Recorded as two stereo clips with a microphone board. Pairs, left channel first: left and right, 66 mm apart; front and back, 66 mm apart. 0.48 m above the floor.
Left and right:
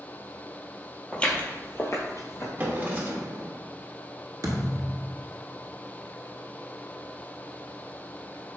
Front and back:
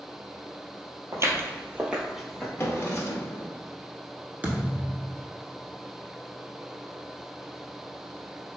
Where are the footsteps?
165° left, 0.7 m; by 2.5 s 85° left, 0.8 m.